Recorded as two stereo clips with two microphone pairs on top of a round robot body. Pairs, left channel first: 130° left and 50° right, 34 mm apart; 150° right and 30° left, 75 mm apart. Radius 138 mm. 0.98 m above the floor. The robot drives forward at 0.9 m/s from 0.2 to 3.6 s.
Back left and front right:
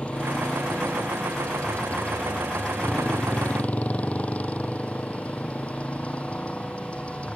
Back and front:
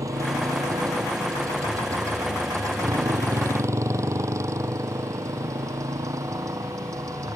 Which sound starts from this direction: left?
A motorcycle, at 0.0 s.